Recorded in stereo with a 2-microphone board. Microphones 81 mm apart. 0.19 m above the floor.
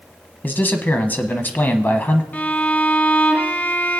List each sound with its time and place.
0.4 s a man speaking: 25° left (ahead or behind), 1.0 m
2.3 s a violin: 20° left (ahead or behind), 1.1 m